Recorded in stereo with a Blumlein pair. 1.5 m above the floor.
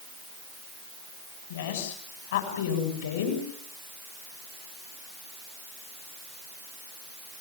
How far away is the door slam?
I don't hear a door slam.